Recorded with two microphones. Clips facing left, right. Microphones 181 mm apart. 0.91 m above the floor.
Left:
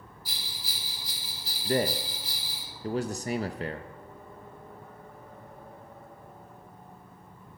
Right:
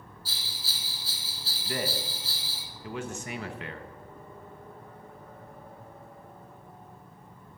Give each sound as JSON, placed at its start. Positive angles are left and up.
{"t": 0.2, "sound": "a bell", "side_deg": 15, "distance_m": 2.0}
{"t": 1.6, "sound": "a man speaking", "side_deg": 35, "distance_m": 0.7}